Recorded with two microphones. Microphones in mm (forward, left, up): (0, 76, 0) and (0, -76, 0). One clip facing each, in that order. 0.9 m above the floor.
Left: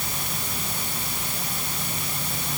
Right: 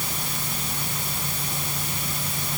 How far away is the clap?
No clap in this recording.